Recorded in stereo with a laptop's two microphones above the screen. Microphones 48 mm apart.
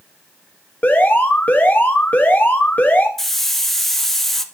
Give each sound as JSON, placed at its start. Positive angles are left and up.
{"t": 0.8, "sound": "an alarm", "side_deg": 35, "distance_m": 1.2}
{"t": 3.2, "sound": "a hiss", "side_deg": 5, "distance_m": 0.9}